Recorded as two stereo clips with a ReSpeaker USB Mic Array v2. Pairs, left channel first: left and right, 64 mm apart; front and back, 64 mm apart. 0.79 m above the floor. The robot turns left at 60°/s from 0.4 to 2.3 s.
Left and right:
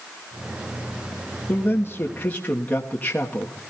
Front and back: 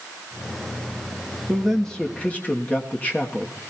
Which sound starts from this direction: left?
A man speaking, at 1.5 s.